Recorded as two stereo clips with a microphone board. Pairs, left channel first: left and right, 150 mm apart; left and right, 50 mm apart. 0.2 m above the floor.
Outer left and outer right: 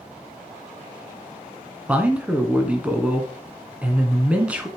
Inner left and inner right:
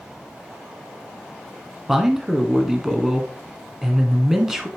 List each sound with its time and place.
1.9 s a man speaking: 10° right (ahead or behind), 1.6 m